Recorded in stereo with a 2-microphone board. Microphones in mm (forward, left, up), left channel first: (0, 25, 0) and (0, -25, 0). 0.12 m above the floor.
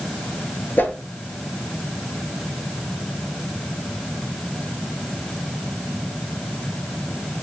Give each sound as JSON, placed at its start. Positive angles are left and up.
{"t": 0.8, "sound": "a whoosh", "side_deg": 45, "distance_m": 0.8}